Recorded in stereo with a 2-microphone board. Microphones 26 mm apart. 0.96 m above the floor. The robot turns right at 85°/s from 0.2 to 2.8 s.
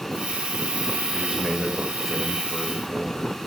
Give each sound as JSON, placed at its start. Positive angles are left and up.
{"t": 1.1, "sound": "a man speaking", "azimuth_deg": -65, "distance_m": 5.5}